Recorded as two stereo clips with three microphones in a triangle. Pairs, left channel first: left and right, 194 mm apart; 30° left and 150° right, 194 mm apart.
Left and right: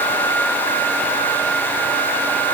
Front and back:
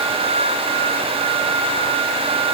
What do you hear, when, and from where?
Only background noise.